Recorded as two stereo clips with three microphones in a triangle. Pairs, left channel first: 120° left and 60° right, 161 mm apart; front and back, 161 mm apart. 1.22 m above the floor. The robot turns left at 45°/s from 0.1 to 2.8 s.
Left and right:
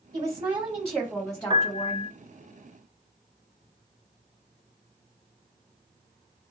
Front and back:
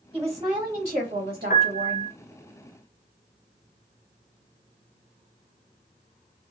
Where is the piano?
5° right, 0.6 m; by 2.1 s 35° right, 0.6 m.